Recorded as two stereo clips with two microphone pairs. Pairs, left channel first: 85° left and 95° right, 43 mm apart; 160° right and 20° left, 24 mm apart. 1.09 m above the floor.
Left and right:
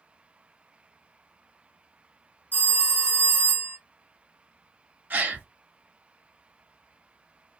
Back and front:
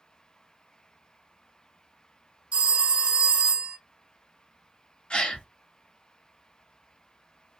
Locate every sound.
2.5 s a phone ringing: 40° left, 1.3 m
5.1 s a gasp: 125° right, 0.8 m